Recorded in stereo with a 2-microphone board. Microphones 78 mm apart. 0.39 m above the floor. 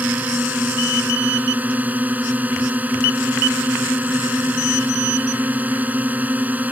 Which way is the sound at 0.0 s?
20° right (ahead or behind).